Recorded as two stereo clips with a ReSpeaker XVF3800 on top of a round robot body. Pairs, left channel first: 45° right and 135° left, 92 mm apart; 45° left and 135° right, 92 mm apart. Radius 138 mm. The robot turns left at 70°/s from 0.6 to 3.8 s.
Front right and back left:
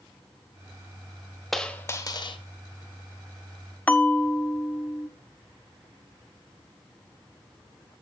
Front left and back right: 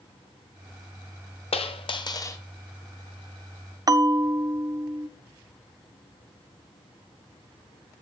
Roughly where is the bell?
Right.